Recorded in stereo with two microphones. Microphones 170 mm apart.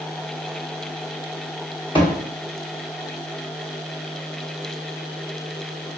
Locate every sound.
1.9 s a thud: 30° left (ahead or behind), 1.5 m